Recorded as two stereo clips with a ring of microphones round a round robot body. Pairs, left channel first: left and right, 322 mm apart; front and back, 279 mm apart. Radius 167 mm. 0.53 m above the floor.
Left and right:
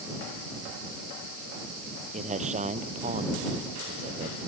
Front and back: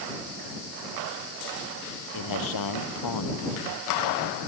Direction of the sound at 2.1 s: 20° right.